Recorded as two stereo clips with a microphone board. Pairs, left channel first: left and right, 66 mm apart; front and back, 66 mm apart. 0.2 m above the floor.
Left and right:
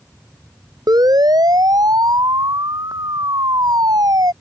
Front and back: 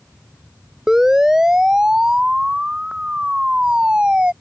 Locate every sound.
0.9 s a siren: 100° right; by 4.3 s 105° right